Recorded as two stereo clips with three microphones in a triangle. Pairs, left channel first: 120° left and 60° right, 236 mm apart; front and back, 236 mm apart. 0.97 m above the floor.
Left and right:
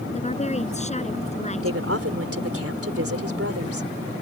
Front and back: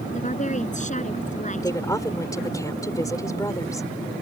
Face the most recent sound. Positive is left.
turn(degrees=-75)